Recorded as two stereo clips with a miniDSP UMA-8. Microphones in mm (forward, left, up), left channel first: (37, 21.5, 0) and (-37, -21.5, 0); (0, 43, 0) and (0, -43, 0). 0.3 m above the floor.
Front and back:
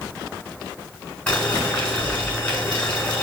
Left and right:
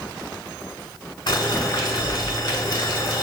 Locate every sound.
1.3 s boiling: 100° left, 1.5 m